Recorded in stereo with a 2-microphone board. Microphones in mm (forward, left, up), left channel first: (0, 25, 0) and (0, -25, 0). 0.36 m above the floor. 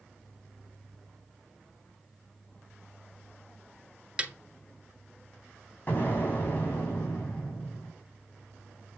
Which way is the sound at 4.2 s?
20° right (ahead or behind).